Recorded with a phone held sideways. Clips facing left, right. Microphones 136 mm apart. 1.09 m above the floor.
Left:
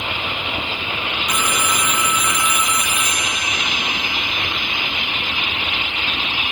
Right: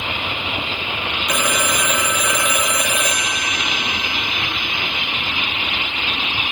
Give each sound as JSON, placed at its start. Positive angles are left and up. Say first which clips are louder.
{"t": 1.3, "sound": "a phone ringing", "louder": "right 2 dB", "side_deg": -85}